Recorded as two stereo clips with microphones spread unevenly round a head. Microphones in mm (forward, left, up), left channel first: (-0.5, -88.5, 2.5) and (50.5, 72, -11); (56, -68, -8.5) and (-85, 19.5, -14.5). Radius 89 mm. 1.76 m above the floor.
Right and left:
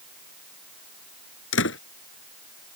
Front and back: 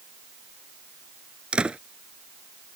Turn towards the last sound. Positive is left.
turn(degrees=-130)